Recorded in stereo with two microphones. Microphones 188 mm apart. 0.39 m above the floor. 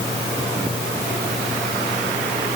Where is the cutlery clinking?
I don't hear cutlery clinking.